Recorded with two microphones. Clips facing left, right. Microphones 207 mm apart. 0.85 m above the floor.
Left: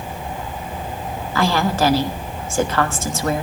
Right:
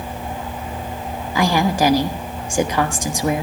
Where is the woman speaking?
15° right (ahead or behind), 1.2 m.